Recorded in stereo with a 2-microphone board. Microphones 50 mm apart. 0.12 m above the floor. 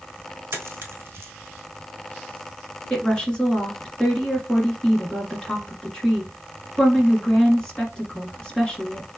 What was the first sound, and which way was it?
A dropped coin, 55° right (ahead or behind).